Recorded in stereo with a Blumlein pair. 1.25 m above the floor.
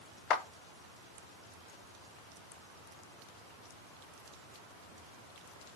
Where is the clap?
30° left, 0.8 m.